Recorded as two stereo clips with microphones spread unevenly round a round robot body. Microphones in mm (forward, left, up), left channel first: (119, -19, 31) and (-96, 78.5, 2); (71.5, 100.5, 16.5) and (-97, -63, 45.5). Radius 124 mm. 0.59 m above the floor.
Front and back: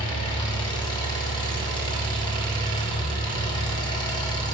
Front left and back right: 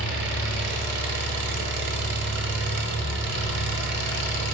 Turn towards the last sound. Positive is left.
turn(degrees=-95)